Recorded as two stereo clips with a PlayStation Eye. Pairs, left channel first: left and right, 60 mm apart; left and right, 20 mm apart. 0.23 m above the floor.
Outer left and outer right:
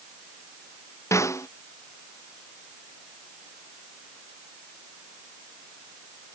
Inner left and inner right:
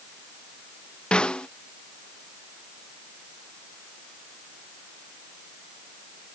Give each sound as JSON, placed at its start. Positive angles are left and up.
{"t": 1.1, "sound": "a snare drum", "side_deg": 55}